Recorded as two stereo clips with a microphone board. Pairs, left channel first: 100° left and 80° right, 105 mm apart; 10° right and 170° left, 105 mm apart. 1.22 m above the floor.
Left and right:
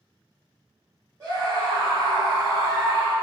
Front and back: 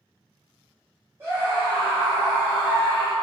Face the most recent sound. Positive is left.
turn(degrees=-105)